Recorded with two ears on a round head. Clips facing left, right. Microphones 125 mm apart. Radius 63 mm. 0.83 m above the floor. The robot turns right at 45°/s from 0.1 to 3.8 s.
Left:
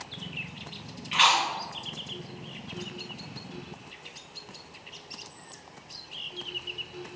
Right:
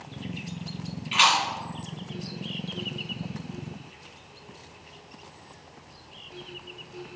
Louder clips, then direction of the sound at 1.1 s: Right 1 dB; 45° right (ahead or behind).